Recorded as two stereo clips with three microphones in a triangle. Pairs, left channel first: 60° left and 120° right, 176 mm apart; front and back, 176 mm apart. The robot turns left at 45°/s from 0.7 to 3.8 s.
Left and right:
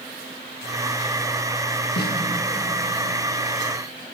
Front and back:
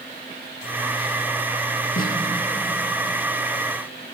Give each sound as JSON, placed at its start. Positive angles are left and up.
{"t": 2.0, "sound": "a snare drum", "azimuth_deg": 35, "distance_m": 1.5}